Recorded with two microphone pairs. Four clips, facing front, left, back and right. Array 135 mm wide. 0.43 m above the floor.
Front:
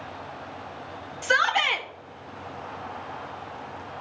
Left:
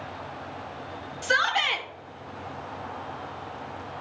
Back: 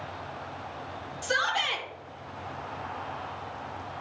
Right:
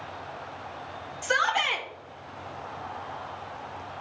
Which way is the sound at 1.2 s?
25° left.